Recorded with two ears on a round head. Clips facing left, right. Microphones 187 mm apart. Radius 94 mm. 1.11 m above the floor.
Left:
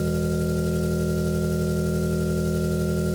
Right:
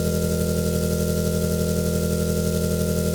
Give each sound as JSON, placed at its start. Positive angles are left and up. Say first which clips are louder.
{"t": 0.0, "sound": "an engine running", "louder": "right 1 dB", "side_deg": -60, "distance_m": 0.7}